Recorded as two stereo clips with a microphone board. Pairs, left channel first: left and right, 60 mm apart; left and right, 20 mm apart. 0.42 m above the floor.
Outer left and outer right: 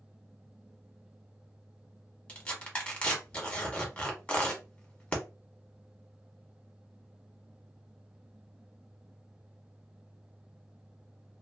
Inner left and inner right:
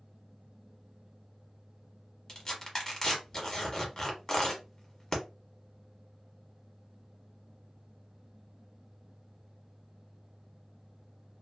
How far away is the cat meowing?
No cat meowing in this recording.